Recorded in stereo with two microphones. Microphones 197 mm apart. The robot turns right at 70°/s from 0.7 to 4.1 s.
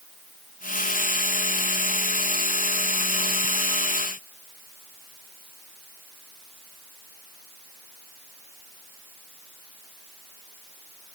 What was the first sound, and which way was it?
Only background noise.